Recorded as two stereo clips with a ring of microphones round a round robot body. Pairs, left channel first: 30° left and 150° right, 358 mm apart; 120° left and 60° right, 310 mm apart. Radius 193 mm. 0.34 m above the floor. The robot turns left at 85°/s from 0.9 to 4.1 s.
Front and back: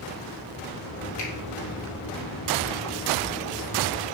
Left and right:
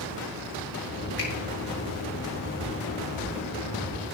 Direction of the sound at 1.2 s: 70° left.